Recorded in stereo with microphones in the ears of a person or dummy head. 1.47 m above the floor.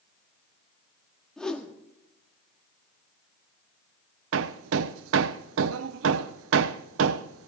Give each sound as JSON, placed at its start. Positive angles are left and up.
{"t": 1.4, "sound": "a whoosh", "side_deg": 5, "distance_m": 1.8}
{"t": 4.3, "sound": "hammering", "side_deg": -80, "distance_m": 0.6}